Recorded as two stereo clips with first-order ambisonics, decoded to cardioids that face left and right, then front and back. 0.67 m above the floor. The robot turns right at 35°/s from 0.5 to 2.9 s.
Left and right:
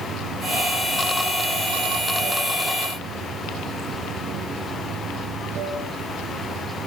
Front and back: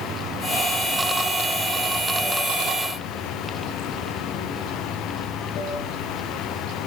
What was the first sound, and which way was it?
Running water, 125° right.